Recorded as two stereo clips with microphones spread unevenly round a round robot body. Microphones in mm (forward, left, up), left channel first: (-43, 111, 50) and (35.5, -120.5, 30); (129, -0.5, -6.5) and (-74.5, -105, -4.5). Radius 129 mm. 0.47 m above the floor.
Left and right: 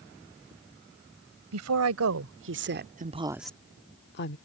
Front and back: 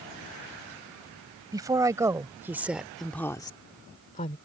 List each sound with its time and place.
1.5 s a woman speaking: 80° right; by 4.4 s 80° left